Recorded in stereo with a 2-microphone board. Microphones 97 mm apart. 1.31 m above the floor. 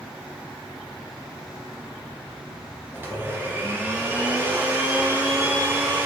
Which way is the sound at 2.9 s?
25° right (ahead or behind).